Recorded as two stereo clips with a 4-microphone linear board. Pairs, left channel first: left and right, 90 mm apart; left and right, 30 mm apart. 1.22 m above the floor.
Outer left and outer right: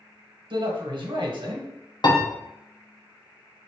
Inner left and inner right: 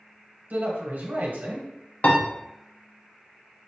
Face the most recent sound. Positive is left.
turn(degrees=50)  # may be behind; listen again after turning